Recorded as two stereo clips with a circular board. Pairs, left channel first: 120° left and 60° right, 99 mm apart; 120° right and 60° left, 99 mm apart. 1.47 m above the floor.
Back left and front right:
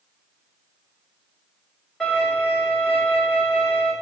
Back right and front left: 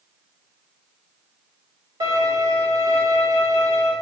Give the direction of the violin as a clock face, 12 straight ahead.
11 o'clock.